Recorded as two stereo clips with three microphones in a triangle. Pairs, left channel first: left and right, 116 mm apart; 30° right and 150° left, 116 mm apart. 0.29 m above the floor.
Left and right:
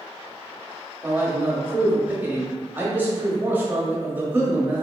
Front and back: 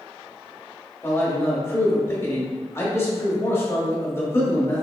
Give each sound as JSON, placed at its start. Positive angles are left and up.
{"t": 1.0, "sound": "a man speaking", "azimuth_deg": -45, "distance_m": 1.0}